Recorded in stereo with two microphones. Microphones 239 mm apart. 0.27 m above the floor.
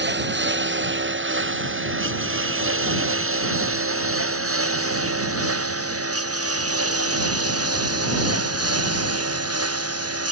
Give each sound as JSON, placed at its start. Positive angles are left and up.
{"t": 0.0, "sound": "a lawn mower", "side_deg": -50}